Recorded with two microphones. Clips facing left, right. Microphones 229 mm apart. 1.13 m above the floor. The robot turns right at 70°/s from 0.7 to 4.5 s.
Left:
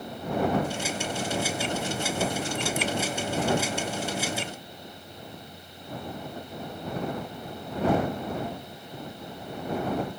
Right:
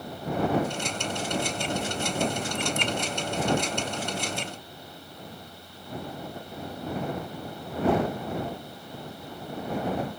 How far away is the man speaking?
I don't hear a man speaking.